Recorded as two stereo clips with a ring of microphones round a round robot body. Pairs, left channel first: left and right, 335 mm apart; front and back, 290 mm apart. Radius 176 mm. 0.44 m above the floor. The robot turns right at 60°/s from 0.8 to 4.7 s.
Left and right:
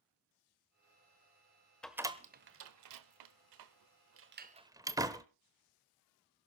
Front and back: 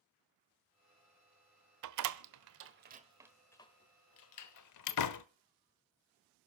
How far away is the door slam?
About 1.1 m.